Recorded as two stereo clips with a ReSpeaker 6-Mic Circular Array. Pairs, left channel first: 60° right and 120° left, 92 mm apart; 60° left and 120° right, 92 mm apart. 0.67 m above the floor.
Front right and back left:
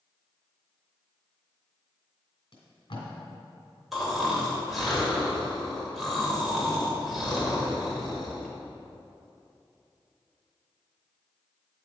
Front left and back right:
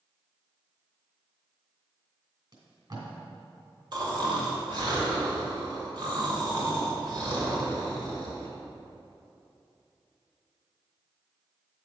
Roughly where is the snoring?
Behind right.